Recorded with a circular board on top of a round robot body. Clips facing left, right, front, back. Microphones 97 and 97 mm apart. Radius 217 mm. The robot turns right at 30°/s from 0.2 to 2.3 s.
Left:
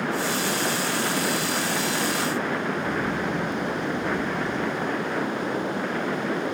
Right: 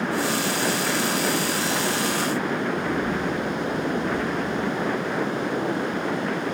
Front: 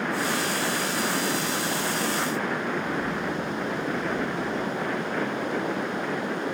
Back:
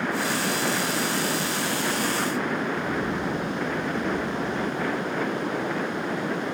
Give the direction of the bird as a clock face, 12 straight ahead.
8 o'clock.